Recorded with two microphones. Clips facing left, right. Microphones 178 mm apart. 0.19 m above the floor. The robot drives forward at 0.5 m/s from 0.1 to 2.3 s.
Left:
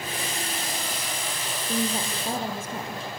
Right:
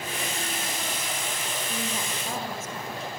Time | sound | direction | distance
1.6 | a woman speaking | 35° left (ahead or behind) | 4.5 m